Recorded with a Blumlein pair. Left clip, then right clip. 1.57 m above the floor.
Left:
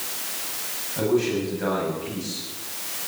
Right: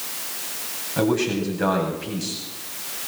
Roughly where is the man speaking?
Ahead right.